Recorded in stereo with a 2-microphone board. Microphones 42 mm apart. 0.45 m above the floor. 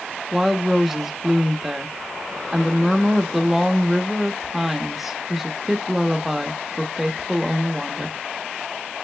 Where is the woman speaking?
5° right (ahead or behind), 0.7 m.